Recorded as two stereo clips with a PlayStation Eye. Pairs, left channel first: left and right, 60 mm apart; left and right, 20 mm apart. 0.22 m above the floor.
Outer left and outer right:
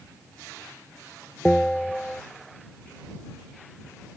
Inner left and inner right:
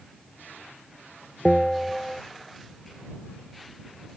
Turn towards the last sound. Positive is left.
turn(degrees=15)  # may be behind; listen again after turning